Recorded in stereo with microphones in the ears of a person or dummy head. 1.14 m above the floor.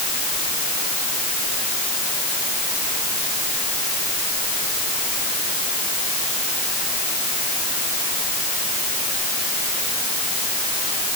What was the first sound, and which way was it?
Only background noise.